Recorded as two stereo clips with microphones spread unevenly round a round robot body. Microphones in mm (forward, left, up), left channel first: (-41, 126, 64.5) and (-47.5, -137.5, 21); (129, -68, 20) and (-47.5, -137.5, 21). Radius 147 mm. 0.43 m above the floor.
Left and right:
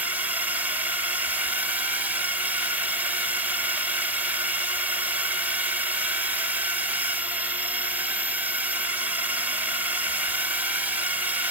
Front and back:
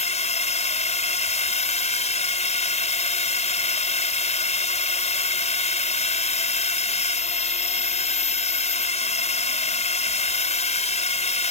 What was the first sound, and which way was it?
A drone, 20° right.